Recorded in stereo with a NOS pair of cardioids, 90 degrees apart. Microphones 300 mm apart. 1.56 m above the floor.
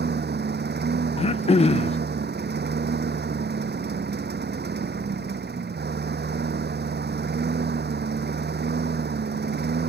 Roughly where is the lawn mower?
Ahead right.